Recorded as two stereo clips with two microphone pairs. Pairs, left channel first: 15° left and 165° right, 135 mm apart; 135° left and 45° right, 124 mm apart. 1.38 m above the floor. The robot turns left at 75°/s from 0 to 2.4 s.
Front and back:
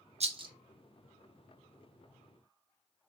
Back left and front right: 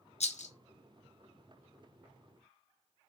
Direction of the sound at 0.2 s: 160° left.